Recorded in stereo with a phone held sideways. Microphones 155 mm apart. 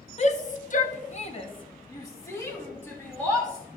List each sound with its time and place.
0.2 s a shout: 45° left (ahead or behind), 1.0 m; by 3.6 s 5° left (ahead or behind), 3 m